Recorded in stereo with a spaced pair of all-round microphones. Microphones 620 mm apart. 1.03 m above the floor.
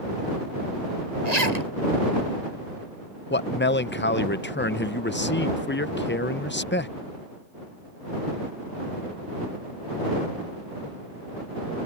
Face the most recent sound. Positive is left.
turn(degrees=20)  # may be behind; listen again after turning